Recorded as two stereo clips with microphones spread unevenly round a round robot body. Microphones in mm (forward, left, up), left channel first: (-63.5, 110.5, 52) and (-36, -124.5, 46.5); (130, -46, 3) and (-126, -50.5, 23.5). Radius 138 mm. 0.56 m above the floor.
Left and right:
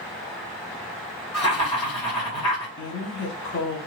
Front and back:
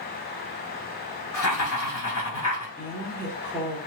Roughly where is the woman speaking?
Left.